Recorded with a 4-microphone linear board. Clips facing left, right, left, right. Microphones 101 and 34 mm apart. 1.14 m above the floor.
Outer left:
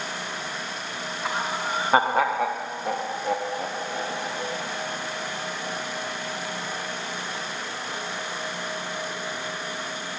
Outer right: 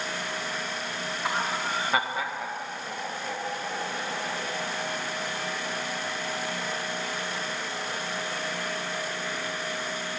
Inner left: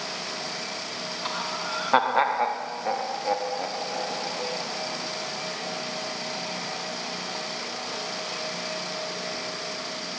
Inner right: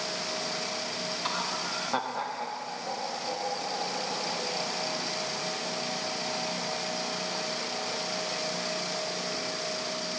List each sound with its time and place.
1.2 s laughter: centre (ahead or behind), 1.5 m; by 4.6 s 50° left (ahead or behind), 4 m